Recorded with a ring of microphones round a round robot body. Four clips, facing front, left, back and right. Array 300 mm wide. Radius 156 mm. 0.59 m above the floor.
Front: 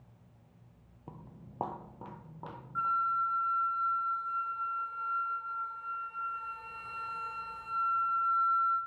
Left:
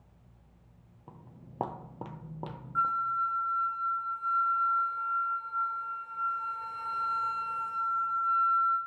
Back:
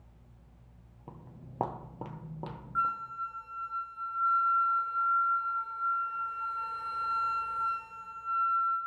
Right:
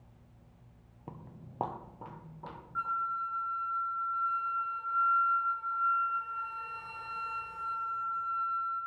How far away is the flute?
About 2.5 m.